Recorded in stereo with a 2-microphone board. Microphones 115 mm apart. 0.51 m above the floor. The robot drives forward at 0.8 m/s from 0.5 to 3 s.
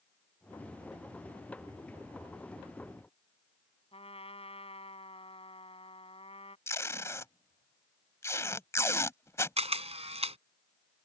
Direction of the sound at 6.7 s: 25° left (ahead or behind).